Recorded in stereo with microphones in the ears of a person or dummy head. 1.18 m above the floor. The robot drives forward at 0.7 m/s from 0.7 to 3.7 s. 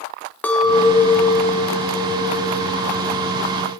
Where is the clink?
10° left (ahead or behind), 0.8 m; by 3.6 s centre (ahead or behind), 3 m.